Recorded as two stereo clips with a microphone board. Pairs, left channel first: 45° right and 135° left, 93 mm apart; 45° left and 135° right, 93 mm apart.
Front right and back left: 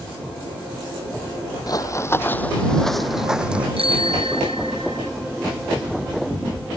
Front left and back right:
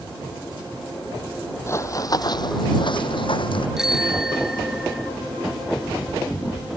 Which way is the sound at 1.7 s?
10° right.